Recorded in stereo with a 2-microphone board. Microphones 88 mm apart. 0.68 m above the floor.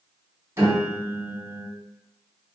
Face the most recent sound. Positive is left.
turn(degrees=-30)  # may be behind; listen again after turning